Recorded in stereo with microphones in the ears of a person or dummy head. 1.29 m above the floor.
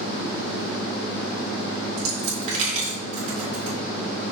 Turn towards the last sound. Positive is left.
turn(degrees=-40)  # may be behind; listen again after turning